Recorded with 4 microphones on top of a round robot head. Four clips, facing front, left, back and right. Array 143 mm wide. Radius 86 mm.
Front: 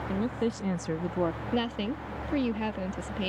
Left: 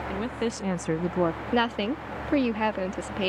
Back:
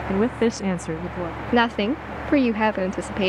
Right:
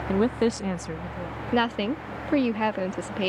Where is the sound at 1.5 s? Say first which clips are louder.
Right 1 dB, back 10 dB; straight behind.